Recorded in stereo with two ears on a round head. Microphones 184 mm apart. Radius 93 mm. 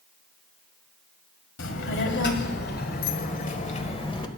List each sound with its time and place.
1.6 s a child speaking: 70° left (ahead or behind), 2.0 m; by 4.3 s 25° left (ahead or behind), 1.4 m